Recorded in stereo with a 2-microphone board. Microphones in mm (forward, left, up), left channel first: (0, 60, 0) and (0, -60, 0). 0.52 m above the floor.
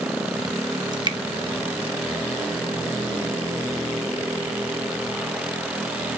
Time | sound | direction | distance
0.9 | dripping | 40° right (ahead or behind) | 0.8 m